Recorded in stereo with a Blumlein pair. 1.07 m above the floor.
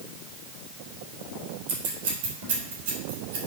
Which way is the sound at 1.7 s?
45° right.